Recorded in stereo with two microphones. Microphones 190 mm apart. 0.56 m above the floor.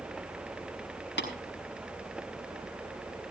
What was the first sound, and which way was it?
Tapping, 70° left (ahead or behind).